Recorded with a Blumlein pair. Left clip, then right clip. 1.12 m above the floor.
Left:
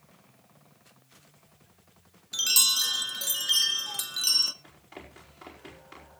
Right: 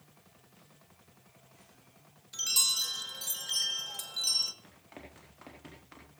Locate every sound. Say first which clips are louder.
2.3 s a chime: left 5 dB; 25° left, 0.6 m
4.6 s running footsteps: left 4 dB; 5° right, 4.5 m